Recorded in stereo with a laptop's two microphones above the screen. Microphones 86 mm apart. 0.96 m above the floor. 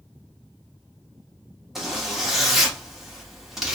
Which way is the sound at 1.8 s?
5° right (ahead or behind).